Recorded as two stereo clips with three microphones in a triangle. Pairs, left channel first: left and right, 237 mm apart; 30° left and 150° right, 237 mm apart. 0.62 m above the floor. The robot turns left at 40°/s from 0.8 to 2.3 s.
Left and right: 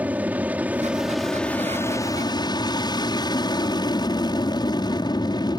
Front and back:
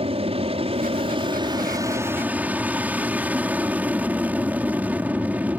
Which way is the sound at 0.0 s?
165° right.